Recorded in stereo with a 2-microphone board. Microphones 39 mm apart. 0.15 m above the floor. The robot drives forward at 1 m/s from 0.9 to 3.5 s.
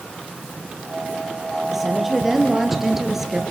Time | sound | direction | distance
1.7 | a woman speaking | 5° right (ahead or behind) | 4.5 m